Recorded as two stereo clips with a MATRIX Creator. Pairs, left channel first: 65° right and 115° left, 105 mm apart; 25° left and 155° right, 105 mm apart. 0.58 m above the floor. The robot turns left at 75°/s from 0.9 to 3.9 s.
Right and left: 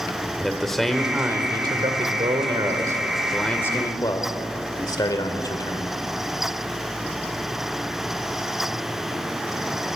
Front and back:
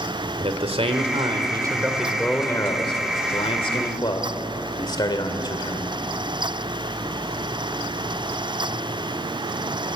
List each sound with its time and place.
0.4 s a man speaking: 155° right, 1.8 m; by 6.0 s 20° right, 1.8 m